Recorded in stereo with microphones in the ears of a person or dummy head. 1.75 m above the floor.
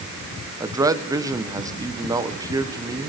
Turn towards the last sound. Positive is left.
turn(degrees=-20)  # may be behind; listen again after turning